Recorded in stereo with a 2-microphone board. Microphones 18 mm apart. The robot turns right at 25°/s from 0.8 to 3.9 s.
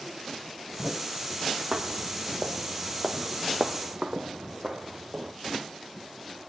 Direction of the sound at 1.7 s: 65° right (ahead or behind).